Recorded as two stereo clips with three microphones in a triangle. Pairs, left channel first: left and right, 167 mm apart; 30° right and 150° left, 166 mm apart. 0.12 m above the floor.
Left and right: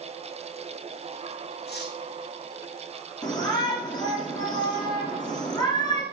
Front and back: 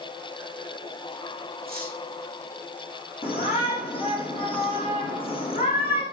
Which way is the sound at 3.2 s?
25° left.